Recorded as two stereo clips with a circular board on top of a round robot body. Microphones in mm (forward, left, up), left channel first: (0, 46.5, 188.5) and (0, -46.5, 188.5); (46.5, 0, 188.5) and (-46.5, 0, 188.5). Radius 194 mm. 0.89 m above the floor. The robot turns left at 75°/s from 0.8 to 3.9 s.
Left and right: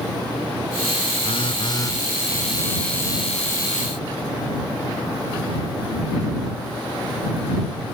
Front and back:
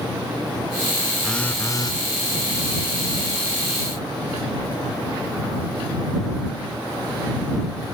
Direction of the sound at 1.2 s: 90° left.